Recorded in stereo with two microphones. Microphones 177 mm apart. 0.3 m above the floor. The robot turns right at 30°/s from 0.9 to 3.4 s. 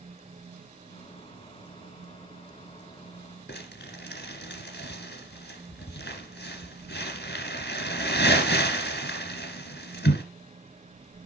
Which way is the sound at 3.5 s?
80° left.